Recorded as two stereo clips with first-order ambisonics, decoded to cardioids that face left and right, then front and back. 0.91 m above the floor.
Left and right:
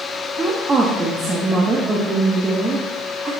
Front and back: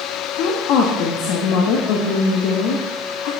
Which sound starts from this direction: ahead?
A woman speaking, at 0.4 s.